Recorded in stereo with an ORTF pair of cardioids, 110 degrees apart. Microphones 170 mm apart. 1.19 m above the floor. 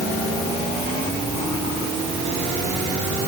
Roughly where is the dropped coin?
I don't hear a dropped coin.